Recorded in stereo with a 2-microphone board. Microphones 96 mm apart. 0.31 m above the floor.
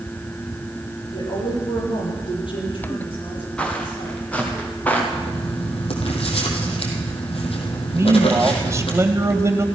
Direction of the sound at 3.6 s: 10° left (ahead or behind).